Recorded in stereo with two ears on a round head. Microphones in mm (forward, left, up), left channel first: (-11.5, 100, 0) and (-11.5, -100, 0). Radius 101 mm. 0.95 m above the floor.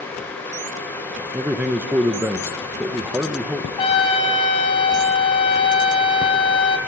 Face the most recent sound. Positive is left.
turn(degrees=25)  # may be behind; listen again after turning